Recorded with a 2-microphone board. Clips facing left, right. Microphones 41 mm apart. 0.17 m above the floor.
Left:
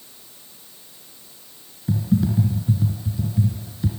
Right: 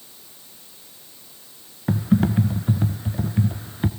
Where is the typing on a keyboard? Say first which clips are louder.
Right 1 dB; 55° right (ahead or behind), 1.3 m.